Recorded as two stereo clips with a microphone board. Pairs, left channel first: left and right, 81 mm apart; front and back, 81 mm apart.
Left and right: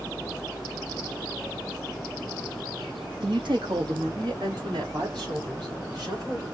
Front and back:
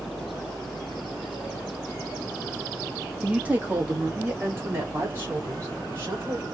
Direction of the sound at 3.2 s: 105° right.